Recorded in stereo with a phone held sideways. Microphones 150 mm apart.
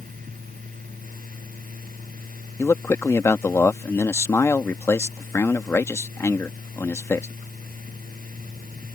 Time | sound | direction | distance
0.0 | a fan | 65° right (ahead or behind) | ?
2.6 | a man speaking | 20° left (ahead or behind) | ?